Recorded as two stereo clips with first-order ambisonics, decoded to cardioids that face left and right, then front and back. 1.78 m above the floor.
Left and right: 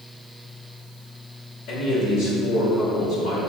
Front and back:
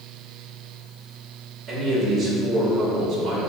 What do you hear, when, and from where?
1.7 s a man speaking: 110° left, 1.0 m